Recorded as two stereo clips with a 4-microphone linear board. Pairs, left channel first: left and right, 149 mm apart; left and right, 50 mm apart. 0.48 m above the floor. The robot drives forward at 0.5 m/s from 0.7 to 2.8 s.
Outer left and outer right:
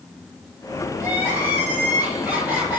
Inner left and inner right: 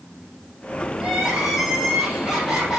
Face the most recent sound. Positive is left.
turn(degrees=-10)  # may be behind; listen again after turning